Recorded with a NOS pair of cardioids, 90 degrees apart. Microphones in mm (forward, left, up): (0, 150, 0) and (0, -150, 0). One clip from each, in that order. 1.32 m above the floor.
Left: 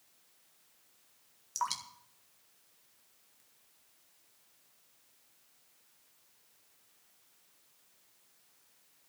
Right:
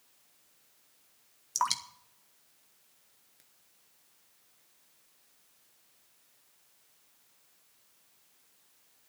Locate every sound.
1.6 s dripping: 35° right, 1.5 m